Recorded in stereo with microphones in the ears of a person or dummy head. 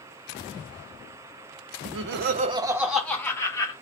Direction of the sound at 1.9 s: 75° right (ahead or behind).